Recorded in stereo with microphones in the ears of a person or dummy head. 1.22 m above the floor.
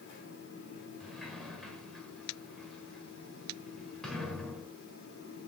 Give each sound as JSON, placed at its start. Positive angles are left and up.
{"t": 0.0, "sound": "a fan", "side_deg": 65, "distance_m": 3.0}
{"t": 1.0, "sound": "a sliding door", "side_deg": 5, "distance_m": 1.8}